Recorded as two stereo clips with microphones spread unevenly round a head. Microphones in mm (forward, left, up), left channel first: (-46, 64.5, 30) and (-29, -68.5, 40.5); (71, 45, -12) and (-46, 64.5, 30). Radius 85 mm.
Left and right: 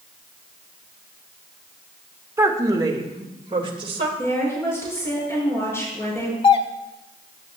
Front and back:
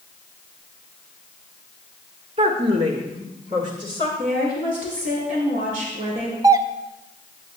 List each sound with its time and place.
2.4 s a woman speaking: 150° right, 1.3 m; by 4.1 s 125° right, 2 m
4.2 s a woman speaking: 165° left, 5.5 m
6.4 s a doorbell: 105° left, 0.7 m